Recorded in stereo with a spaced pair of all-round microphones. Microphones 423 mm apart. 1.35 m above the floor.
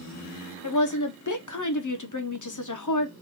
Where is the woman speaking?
45° left (ahead or behind), 0.7 m.